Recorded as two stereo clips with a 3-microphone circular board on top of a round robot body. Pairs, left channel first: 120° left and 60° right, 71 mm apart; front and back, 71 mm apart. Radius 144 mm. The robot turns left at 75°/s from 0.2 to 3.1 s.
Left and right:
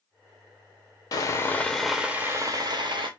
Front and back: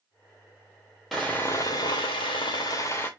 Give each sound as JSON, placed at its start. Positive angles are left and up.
{"t": 1.1, "sound": "sawing", "azimuth_deg": 90, "distance_m": 0.5}